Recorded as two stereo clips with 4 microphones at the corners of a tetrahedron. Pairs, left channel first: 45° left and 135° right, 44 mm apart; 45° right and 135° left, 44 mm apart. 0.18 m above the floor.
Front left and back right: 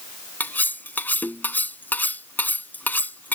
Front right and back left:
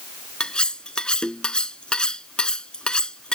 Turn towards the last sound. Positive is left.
turn(degrees=20)